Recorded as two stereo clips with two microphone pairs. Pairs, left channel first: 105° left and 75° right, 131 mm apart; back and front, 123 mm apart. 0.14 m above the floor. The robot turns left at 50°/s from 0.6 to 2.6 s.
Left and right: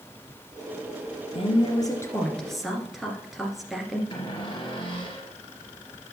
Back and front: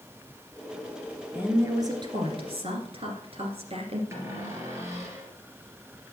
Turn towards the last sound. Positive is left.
turn(degrees=65)